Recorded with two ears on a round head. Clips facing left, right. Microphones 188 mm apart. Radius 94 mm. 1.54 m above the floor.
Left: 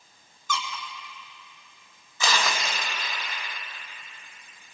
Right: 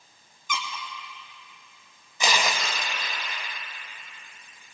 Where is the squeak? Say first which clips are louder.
Left 2 dB; 15° right (ahead or behind), 1.9 m.